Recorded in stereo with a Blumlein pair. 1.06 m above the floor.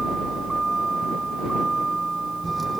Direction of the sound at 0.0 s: 10° right.